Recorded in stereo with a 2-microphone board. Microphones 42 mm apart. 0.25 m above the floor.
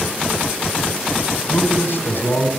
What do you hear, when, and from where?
1.5 s a man speaking: 60° left (ahead or behind), 3 m